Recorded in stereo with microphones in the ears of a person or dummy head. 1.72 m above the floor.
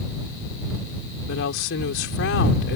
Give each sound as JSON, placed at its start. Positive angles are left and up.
{"t": 1.3, "sound": "a woman speaking", "side_deg": 65}